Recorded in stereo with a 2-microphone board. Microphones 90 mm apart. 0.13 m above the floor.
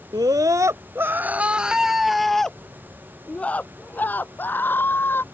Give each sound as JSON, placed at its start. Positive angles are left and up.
{"t": 0.1, "sound": "a scream", "side_deg": -50}